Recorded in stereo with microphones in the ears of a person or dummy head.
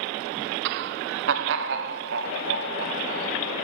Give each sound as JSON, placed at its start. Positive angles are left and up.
{"t": 0.7, "sound": "laughter", "side_deg": -65, "distance_m": 0.5}